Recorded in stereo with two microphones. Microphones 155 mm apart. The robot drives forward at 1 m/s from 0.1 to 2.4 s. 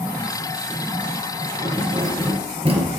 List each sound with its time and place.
1.6 s keys jangling: 30° right (ahead or behind), 3.5 m; by 2.9 s 40° right (ahead or behind), 2.5 m